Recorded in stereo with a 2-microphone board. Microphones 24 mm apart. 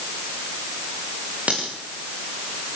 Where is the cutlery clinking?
65° right (ahead or behind), 8.5 m.